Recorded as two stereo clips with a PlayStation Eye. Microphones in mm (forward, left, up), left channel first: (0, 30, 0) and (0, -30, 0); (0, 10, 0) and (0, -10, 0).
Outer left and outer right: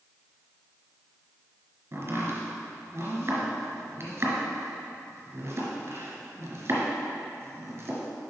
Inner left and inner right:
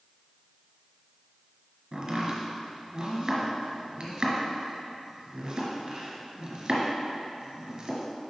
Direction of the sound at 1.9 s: 45° right (ahead or behind).